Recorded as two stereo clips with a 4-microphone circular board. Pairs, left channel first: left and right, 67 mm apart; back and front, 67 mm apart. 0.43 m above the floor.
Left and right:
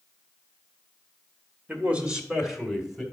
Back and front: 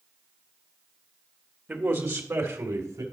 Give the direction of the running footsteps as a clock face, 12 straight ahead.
I don't hear running footsteps.